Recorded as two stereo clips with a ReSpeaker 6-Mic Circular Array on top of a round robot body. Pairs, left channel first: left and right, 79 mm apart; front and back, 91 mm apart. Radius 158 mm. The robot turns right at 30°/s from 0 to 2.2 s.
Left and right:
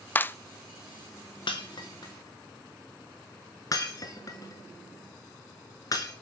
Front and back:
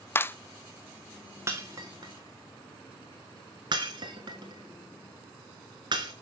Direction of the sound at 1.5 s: 120° left.